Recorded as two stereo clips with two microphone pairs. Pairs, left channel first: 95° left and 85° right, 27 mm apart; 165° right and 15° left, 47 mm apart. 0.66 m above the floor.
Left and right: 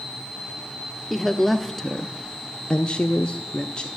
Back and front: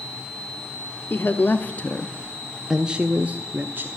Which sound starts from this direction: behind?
A woman speaking, at 1.1 s.